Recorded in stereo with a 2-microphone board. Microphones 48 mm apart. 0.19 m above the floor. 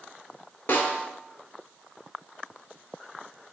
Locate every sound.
0.7 s a snare drum: 50° left (ahead or behind), 0.5 m